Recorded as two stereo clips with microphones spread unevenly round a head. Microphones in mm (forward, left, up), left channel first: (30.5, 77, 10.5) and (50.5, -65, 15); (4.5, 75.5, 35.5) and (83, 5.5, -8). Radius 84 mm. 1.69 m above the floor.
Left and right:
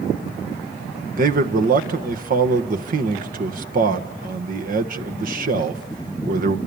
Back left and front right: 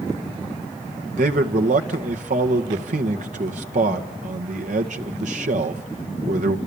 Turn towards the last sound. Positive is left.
turn(degrees=-60)